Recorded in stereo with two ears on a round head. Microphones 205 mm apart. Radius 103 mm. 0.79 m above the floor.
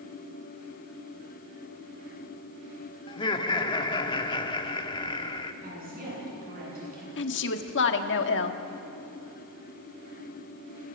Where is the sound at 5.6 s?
40° right (ahead or behind), 8.5 m.